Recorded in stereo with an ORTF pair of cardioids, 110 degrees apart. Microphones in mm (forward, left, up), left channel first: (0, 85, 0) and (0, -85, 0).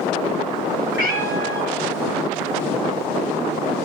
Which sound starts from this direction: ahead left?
A cat meowing, at 0.9 s.